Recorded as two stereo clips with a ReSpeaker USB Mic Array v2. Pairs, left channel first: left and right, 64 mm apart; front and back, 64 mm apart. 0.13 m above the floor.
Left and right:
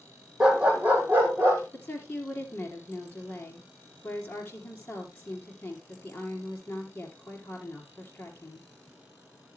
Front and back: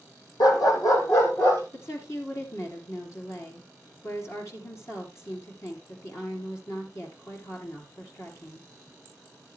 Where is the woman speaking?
35° left, 3 m.